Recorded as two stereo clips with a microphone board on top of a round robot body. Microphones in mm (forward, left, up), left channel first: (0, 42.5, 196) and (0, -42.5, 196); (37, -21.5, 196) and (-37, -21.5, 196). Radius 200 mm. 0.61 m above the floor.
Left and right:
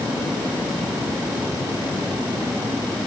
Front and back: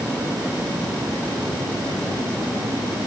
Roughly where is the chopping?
No chopping in this recording.